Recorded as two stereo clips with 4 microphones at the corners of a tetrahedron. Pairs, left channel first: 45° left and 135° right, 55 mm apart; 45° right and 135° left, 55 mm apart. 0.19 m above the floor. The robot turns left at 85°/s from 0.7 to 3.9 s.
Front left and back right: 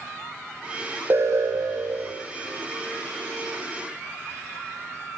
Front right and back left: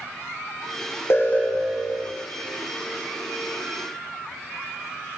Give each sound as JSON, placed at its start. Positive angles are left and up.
{"t": 1.1, "sound": "an alarm", "azimuth_deg": -85, "distance_m": 8.5}